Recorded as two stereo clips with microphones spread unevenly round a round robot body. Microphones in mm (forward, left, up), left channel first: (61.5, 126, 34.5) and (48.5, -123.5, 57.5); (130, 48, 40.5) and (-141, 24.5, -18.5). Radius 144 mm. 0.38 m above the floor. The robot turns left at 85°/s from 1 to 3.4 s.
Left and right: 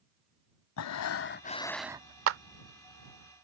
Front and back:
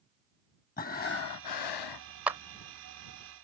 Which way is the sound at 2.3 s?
100° right.